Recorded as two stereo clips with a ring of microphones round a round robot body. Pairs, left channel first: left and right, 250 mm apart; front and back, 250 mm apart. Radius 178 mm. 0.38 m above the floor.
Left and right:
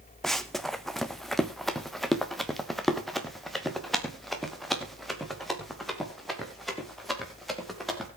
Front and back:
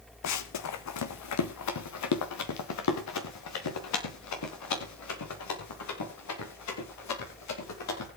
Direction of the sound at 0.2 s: Straight ahead.